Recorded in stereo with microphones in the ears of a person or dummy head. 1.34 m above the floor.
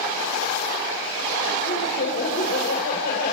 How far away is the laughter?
About 5.5 m.